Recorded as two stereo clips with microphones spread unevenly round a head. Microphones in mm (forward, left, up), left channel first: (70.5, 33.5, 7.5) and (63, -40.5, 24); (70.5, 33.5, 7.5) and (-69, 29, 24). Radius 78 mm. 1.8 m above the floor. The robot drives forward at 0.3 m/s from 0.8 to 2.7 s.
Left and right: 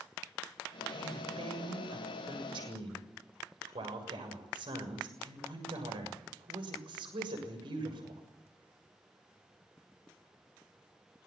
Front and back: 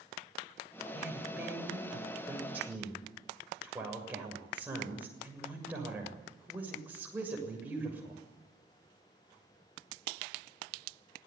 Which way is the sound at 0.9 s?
95° right.